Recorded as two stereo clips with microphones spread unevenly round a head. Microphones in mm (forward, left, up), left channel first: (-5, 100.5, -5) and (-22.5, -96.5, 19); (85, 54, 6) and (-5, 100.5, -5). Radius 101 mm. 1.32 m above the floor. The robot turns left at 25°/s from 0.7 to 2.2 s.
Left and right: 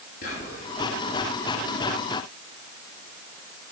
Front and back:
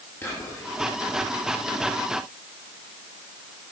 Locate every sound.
0.2 s whispering: 40° left, 2.5 m